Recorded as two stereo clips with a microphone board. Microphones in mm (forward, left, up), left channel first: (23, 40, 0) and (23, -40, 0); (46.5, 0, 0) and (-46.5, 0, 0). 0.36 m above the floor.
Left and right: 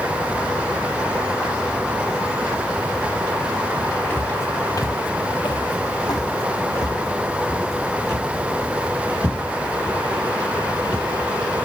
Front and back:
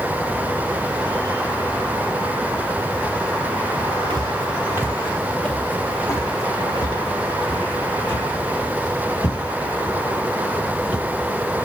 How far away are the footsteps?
About 0.8 m.